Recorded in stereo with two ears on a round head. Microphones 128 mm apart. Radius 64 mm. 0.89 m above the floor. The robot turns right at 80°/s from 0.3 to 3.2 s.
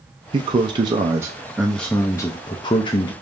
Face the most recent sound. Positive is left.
turn(degrees=125)